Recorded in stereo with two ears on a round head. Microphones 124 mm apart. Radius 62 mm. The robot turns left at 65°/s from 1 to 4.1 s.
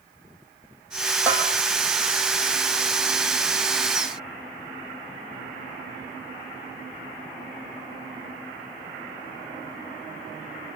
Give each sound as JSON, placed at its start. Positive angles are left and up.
{"t": 1.3, "sound": "a bell", "side_deg": -15, "distance_m": 3.0}